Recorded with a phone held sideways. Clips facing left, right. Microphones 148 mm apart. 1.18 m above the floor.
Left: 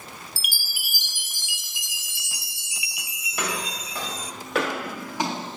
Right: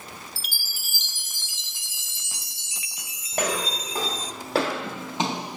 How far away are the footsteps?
About 2.5 m.